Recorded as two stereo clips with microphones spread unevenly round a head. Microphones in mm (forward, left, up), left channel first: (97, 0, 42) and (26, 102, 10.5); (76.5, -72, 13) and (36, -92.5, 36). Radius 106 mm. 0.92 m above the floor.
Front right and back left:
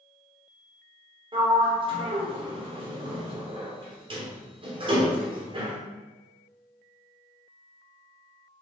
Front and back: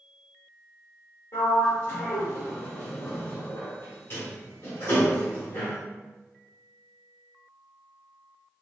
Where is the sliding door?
80° left, 2 m.